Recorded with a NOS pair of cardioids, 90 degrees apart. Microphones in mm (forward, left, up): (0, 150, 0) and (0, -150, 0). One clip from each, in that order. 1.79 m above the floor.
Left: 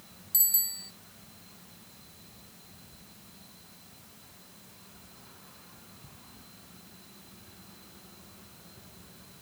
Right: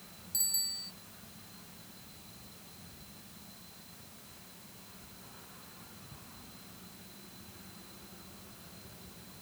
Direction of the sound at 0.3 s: 50° left.